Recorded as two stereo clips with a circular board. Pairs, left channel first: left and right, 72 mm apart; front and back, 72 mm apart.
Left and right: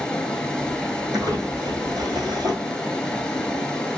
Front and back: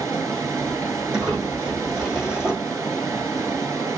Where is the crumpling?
105° right, 3.5 m.